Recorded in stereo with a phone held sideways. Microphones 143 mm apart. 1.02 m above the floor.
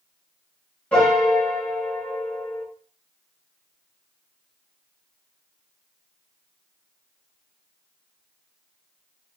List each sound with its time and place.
0.9 s a piano: 10° left (ahead or behind), 1.3 m